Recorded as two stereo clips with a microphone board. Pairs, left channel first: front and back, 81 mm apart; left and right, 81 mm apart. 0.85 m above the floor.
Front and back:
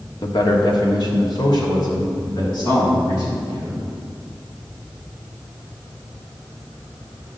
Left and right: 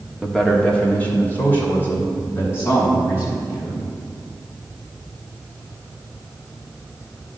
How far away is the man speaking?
About 1.4 m.